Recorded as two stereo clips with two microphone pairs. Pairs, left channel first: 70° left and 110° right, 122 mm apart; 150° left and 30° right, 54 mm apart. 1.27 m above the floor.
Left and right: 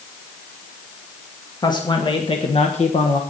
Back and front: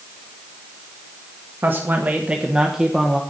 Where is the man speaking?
15° left, 1.5 m; by 3.2 s 60° left, 1.2 m.